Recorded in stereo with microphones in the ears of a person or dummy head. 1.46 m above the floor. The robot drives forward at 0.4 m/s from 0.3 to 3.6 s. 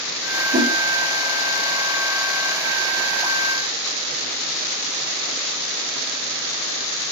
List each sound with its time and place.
0.5 s a whoosh: 40° right (ahead or behind), 1.8 m; by 0.7 s 45° right (ahead or behind), 1.8 m